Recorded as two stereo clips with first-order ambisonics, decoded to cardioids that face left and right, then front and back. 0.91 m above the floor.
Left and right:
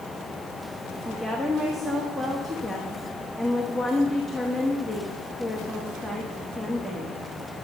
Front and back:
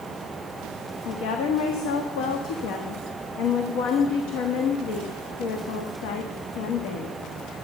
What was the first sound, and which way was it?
A woman speaking, straight ahead.